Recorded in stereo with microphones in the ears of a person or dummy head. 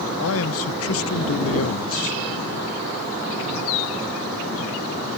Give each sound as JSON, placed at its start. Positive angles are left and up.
{"t": 0.2, "sound": "a man speaking", "side_deg": 70}